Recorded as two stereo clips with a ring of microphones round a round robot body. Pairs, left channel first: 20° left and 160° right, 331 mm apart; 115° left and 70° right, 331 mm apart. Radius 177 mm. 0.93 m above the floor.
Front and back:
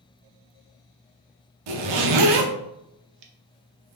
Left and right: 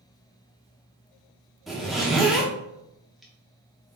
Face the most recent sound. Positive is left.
turn(degrees=-155)